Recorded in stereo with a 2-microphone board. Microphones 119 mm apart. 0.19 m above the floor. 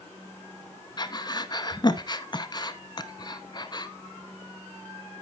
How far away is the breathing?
About 0.6 m.